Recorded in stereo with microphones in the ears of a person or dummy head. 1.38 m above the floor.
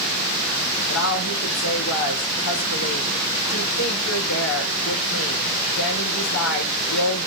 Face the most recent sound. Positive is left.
turn(degrees=80)